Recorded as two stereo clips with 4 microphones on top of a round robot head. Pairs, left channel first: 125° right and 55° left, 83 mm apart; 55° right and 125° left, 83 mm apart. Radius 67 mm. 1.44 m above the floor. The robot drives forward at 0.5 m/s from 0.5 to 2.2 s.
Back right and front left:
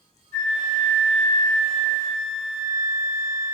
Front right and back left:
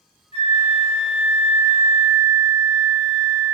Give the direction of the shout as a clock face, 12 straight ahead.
No shout in this recording.